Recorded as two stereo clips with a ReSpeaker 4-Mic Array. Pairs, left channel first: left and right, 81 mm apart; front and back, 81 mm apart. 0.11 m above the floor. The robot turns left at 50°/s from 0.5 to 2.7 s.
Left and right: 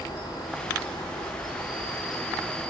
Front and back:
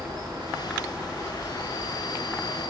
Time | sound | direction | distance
0.0 | an insect | 120° left | 4.5 m